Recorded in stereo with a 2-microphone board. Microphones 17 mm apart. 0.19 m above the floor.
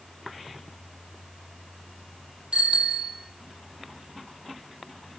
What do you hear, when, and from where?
2.5 s a bicycle bell: 80° right, 4.5 m